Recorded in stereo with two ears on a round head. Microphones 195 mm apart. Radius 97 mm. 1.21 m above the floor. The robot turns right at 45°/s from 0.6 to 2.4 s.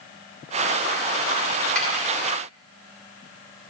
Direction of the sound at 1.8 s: 5° left (ahead or behind).